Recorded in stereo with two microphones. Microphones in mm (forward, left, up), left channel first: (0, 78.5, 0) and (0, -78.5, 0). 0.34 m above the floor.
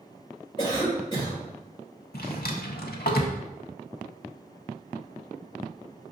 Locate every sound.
0.6 s a cough: 30° left (ahead or behind), 1.5 m
2.1 s a drawer: 85° left, 0.5 m